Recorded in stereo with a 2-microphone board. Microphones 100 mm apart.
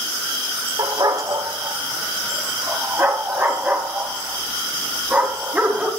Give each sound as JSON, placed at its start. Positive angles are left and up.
{"t": 0.8, "sound": "a dog barking", "side_deg": -40, "distance_m": 1.5}